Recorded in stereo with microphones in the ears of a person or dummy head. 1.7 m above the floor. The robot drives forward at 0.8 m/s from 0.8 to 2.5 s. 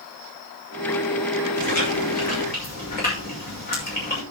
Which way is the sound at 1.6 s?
50° left (ahead or behind).